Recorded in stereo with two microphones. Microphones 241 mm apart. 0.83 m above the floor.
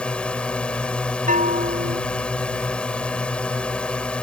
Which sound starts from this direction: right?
A bell, at 1.3 s.